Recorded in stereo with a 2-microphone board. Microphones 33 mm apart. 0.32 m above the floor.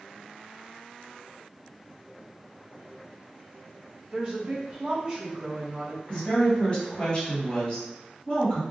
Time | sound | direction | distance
4.1 | a woman speaking | 30° right (ahead or behind) | 1.4 m
6.1 | a woman speaking | 35° left (ahead or behind) | 1.7 m